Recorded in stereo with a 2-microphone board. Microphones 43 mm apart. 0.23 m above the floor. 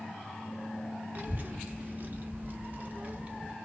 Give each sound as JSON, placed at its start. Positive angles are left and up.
{"t": 1.1, "sound": "a child speaking", "side_deg": -35, "distance_m": 1.5}